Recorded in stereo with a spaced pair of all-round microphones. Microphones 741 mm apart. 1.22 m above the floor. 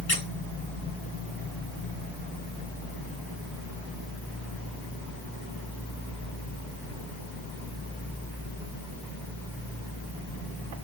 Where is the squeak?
35° left (ahead or behind), 5.5 m.